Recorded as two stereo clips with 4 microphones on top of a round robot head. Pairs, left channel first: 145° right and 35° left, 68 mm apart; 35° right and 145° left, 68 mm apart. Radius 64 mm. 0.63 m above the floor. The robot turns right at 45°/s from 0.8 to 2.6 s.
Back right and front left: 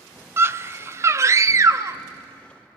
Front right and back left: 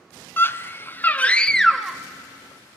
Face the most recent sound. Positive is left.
turn(degrees=85)